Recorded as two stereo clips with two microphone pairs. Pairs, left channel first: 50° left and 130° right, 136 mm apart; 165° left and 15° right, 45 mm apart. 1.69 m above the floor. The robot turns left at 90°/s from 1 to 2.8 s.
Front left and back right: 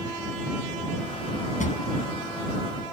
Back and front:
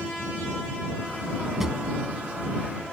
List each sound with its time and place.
1.6 s a drawer: 70° left; by 1.8 s 55° left